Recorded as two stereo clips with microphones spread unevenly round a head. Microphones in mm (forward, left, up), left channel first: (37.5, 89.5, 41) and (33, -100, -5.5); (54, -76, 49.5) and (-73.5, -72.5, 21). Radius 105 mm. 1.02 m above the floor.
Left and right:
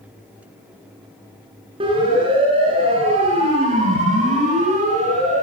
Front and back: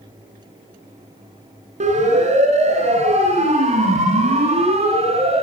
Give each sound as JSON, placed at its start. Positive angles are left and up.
{"t": 1.8, "sound": "a siren", "azimuth_deg": -155, "distance_m": 9.5}